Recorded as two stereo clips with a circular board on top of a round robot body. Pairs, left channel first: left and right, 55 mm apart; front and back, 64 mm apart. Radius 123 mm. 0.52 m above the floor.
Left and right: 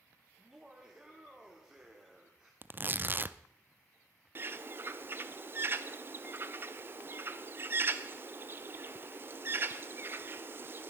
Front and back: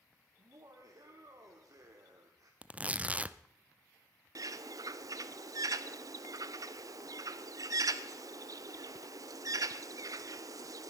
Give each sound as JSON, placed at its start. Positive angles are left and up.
{"t": 0.4, "sound": "laughter", "azimuth_deg": -165, "distance_m": 1.9}
{"t": 2.6, "sound": "tearing paper", "azimuth_deg": -120, "distance_m": 0.7}
{"t": 4.3, "sound": "a bird", "azimuth_deg": -145, "distance_m": 0.6}